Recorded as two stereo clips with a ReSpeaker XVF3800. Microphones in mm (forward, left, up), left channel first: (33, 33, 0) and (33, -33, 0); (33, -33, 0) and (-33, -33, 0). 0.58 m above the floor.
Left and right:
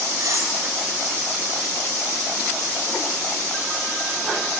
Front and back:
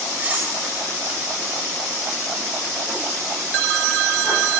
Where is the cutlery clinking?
115° right, 1.7 m.